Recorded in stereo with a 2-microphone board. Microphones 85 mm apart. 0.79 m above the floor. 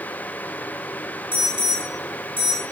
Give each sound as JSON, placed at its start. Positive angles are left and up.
{"t": 1.3, "sound": "an alarm", "side_deg": -85, "distance_m": 4.5}